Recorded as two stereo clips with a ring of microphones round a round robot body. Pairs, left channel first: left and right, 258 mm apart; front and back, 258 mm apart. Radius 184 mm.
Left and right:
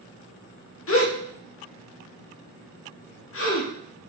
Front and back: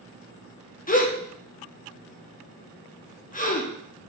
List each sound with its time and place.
0.9 s a gasp: 60° left, 1.5 m